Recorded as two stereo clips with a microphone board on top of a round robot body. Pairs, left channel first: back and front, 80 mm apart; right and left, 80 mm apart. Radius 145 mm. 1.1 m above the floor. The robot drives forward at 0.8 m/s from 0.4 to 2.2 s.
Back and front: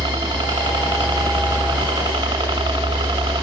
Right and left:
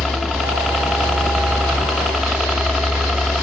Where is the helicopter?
Straight ahead; by 3.4 s 5° left.